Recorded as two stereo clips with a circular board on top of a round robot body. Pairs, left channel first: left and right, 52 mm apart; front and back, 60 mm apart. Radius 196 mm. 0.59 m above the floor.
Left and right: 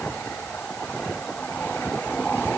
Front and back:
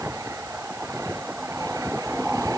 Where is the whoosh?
I don't hear a whoosh.